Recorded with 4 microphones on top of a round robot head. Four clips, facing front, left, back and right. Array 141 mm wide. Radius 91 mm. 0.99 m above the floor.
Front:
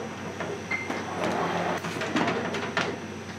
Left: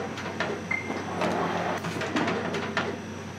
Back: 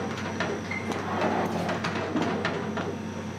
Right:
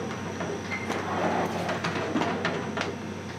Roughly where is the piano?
Ahead left.